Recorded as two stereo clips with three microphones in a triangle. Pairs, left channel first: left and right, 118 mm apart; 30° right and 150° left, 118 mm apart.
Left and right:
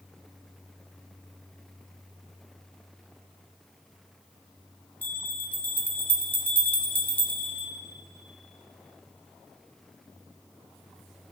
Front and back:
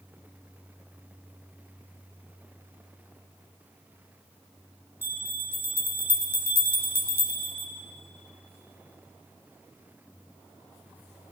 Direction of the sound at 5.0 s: 135° left.